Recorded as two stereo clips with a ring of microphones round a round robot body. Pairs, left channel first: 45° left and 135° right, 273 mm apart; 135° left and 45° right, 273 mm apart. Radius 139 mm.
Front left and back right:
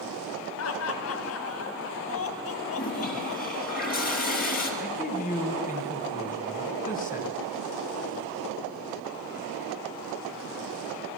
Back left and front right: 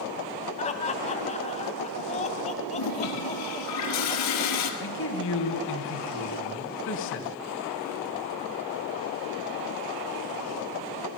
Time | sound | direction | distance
0.6 | laughter | 70° left | 2.5 m
2.7 | a toilet flushing | 105° left | 3.5 m
4.8 | a man speaking | 100° left | 2.5 m